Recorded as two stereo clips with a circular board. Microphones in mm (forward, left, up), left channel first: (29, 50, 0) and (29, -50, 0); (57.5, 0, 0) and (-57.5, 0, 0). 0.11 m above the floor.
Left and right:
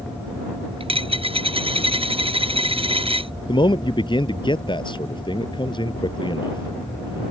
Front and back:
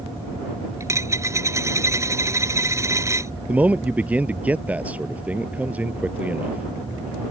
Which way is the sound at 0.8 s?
115° right.